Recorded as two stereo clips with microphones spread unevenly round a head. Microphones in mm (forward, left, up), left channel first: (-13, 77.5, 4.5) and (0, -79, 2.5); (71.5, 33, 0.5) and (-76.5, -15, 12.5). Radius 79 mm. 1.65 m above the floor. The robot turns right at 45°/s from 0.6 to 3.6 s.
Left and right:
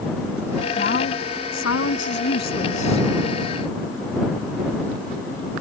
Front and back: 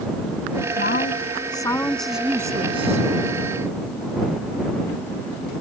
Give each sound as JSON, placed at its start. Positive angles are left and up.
{"t": 0.8, "sound": "a woman speaking", "azimuth_deg": 50}